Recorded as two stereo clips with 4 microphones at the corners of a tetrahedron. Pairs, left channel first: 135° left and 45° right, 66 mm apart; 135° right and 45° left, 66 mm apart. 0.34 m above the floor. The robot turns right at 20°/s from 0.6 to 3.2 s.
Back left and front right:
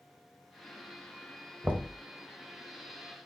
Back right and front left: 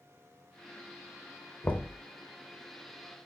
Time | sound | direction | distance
1.6 | knocking | 90° right | 0.7 m